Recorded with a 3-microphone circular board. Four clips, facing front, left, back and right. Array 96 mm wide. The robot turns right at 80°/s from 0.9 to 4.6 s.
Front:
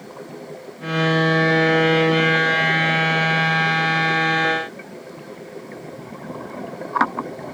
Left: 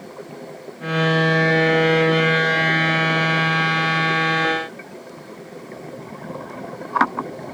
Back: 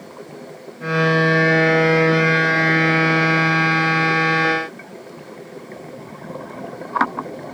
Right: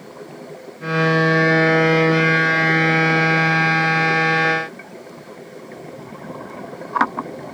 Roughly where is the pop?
No pop in this recording.